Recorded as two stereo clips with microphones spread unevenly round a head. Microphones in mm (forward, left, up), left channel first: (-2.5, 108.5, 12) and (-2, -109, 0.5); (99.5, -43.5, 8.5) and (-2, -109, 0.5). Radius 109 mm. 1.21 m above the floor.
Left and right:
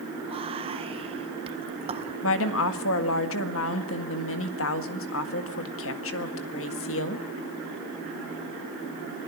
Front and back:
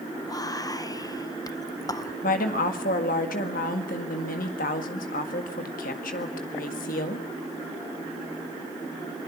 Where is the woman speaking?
60° left, 1.8 m.